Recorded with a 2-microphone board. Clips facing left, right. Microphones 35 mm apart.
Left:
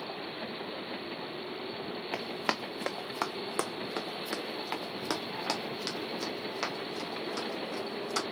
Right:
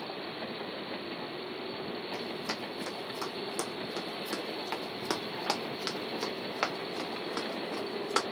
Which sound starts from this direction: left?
Running footsteps, at 2.1 s.